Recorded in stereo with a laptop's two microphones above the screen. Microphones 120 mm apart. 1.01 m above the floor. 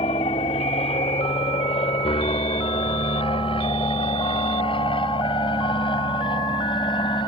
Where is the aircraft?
60° left (ahead or behind); by 7.3 s 40° left (ahead or behind).